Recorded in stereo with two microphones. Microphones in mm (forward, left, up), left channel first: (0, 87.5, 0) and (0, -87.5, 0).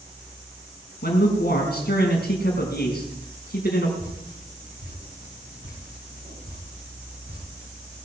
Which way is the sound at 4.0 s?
60° right (ahead or behind).